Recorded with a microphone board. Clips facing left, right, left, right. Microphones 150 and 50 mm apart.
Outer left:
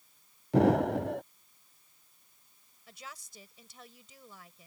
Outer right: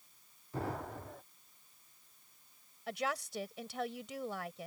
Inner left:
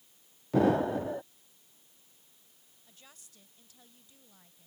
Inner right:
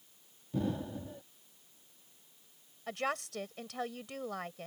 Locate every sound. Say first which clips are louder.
0.5 s an explosion: outer left 16 dB, inner left 11 dB; 80° left
2.9 s a woman speaking: outer right 13 dB, inner right 25 dB; 80° right